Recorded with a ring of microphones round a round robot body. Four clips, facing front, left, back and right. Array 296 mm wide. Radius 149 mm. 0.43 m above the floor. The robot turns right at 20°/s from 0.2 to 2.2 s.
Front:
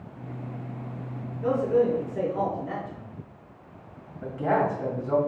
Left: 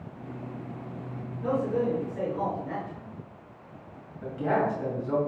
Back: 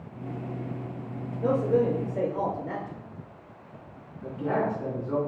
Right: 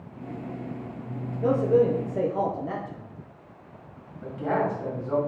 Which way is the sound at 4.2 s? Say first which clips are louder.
Even, front 3 dB; 15° left.